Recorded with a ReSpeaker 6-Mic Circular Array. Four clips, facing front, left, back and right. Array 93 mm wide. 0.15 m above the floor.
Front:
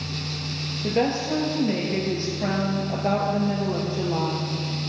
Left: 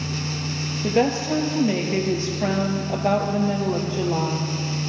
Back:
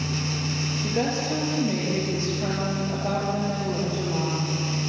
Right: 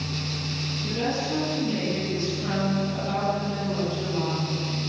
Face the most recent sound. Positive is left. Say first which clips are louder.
# left 7 dB, front 4 dB
turn(degrees=75)